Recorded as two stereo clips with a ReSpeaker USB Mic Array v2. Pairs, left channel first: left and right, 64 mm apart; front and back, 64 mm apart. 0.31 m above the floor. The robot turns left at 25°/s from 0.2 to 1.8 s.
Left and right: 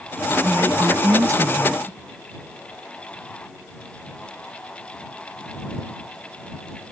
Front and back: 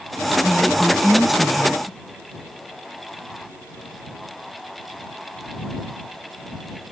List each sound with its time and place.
0.4 s a woman speaking: 70° right; by 2.0 s 105° right